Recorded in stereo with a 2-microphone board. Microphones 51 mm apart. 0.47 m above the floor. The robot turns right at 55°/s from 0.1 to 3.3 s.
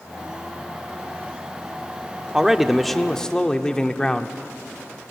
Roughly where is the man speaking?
Centre.